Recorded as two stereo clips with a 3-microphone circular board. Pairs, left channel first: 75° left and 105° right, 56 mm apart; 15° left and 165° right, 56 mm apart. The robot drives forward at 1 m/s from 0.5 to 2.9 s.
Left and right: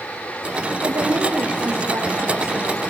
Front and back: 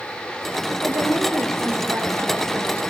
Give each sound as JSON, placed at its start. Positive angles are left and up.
{"t": 0.7, "sound": "a woman speaking", "azimuth_deg": -120, "distance_m": 7.0}